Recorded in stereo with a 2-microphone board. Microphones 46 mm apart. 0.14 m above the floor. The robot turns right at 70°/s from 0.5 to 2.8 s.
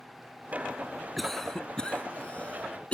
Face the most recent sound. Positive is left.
turn(degrees=25)  # may be behind; listen again after turning